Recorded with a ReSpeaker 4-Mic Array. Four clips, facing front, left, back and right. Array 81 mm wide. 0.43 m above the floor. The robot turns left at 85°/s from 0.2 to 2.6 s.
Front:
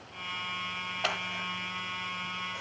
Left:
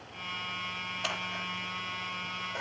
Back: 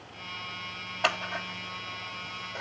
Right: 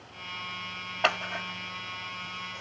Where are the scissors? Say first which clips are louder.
Right 9 dB, back 5 dB; 105° right, 1.3 m; by 2.6 s 125° left, 1.3 m.